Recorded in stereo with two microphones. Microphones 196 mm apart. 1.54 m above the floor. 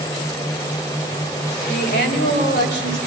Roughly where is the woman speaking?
Left.